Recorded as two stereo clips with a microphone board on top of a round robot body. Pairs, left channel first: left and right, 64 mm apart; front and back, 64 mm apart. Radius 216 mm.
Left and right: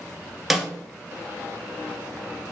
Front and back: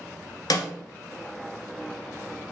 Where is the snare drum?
5° right, 0.9 m.